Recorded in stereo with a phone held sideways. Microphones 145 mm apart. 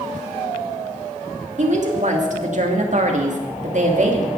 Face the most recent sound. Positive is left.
turn(degrees=-55)  # may be behind; listen again after turning